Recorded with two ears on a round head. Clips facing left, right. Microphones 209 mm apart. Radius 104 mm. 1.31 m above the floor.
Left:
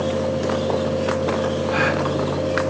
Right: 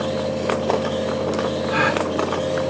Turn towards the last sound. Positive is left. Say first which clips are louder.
# even
turn(degrees=0)  # may be behind; listen again after turning